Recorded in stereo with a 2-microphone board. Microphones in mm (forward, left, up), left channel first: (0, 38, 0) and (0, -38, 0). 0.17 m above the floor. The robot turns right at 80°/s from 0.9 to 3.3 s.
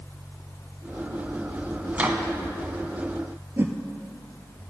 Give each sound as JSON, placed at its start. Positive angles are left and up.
{"t": 1.9, "sound": "a microwave", "side_deg": -20, "distance_m": 1.0}
{"t": 3.6, "sound": "a whoosh", "side_deg": -30, "distance_m": 1.0}